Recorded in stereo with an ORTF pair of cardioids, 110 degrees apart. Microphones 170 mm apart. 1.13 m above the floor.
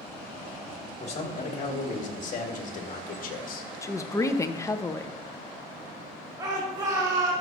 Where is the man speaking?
40° left, 3 m; by 3.7 s 60° left, 1.5 m.